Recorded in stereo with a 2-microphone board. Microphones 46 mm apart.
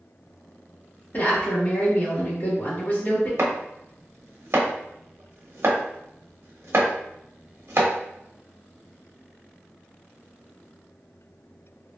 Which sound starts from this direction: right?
Chopping, at 3.4 s.